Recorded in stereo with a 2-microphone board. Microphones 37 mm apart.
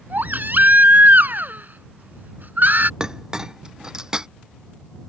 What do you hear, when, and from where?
0.1 s a baby crying: 60° right (ahead or behind)
3.0 s a clink: 20° right (ahead or behind)